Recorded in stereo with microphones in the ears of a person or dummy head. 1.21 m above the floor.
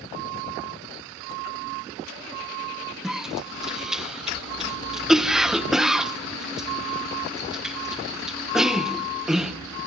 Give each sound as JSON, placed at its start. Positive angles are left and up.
{"t": 3.0, "sound": "a cough", "side_deg": 0, "distance_m": 1.2}